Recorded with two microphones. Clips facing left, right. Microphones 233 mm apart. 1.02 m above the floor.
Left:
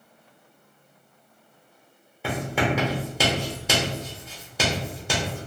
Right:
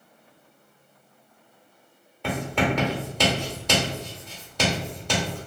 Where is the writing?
10° left (ahead or behind), 1.0 m.